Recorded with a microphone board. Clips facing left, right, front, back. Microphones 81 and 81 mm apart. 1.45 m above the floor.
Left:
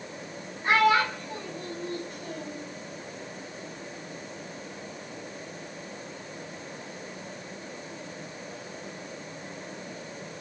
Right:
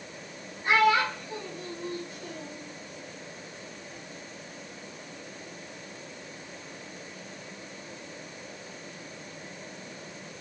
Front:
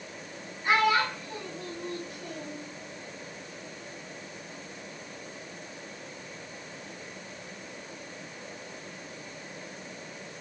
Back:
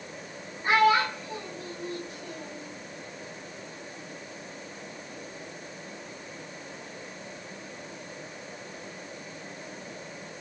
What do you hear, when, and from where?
0.6 s a child speaking: 135° left, 1.7 m; by 2.6 s 65° left, 1.7 m